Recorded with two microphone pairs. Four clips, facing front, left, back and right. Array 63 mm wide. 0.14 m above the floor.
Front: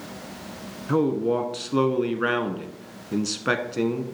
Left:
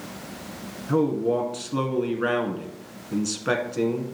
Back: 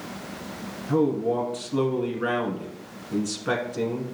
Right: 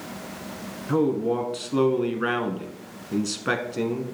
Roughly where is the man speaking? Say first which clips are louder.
Even, front 1 dB; ahead.